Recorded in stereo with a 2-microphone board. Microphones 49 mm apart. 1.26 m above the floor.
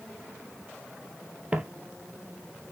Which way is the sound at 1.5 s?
25° right (ahead or behind).